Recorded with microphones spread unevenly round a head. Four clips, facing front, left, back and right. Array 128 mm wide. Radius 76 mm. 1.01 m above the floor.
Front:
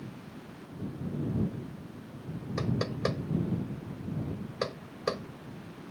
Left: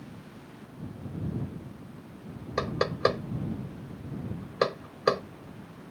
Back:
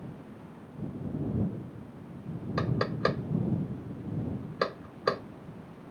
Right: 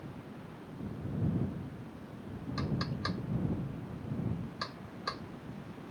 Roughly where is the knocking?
Behind left.